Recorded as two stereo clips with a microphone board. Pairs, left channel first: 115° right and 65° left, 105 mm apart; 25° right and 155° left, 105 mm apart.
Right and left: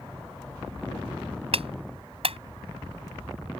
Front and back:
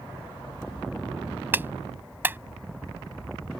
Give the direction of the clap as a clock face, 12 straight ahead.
9 o'clock.